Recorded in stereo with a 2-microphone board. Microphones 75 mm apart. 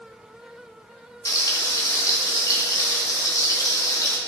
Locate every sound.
1.2 s frying: 55° left (ahead or behind), 2.5 m